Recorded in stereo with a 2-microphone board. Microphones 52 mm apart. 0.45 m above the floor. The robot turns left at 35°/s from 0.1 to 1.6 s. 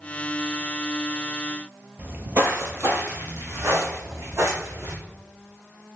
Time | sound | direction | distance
2.0 | footsteps | 30° right (ahead or behind) | 0.6 m